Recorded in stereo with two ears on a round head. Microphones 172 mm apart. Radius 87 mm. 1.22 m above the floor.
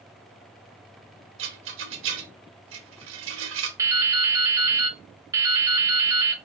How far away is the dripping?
About 0.5 m.